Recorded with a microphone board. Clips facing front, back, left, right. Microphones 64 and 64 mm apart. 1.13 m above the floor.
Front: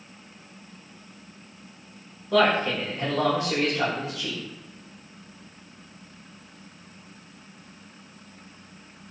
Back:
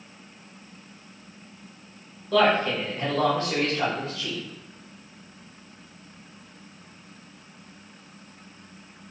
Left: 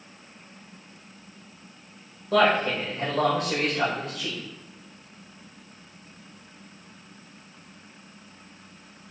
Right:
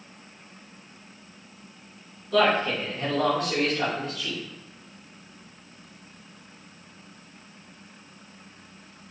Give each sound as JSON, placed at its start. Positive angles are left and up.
{"t": 2.3, "sound": "a man speaking", "azimuth_deg": 75, "distance_m": 1.6}